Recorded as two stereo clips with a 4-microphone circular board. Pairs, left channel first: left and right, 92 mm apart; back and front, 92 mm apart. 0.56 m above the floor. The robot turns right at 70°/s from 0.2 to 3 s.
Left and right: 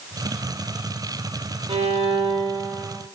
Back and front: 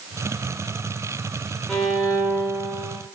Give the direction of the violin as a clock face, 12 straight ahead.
3 o'clock.